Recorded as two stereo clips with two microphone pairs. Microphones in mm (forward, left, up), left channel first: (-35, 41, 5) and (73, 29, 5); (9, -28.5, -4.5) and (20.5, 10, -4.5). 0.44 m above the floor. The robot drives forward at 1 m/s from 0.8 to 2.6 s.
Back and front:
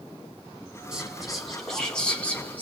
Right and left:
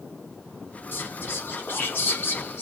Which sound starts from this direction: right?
Whispering, at 0.9 s.